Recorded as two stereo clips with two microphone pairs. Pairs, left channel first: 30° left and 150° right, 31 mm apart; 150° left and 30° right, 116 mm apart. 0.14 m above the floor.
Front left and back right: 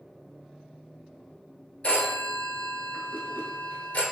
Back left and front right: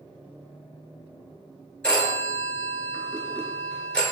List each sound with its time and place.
1.8 s a phone ringing: 70° left, 1.4 m